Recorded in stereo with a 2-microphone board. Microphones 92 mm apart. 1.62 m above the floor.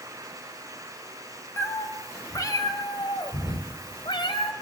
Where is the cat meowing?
25° left (ahead or behind), 2 m; by 4.5 s 60° left (ahead or behind), 2.5 m.